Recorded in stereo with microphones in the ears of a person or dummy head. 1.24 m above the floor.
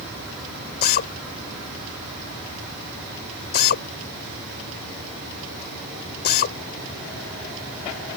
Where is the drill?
50° left (ahead or behind).